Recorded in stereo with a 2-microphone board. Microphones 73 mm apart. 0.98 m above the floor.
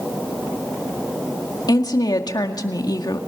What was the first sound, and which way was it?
A woman speaking, 70° left (ahead or behind).